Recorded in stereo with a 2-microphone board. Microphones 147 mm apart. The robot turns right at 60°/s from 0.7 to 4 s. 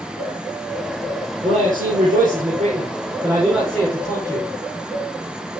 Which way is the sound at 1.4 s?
135° right.